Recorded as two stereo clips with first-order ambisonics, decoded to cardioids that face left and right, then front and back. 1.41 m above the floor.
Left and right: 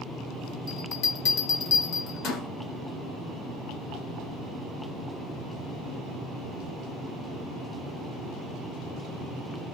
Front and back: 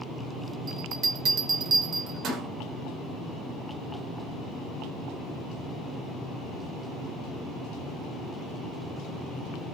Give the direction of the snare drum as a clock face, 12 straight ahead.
9 o'clock.